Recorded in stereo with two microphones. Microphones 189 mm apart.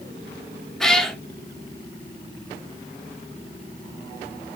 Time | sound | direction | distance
0.8 | a cat meowing | 5° left (ahead or behind) | 0.5 m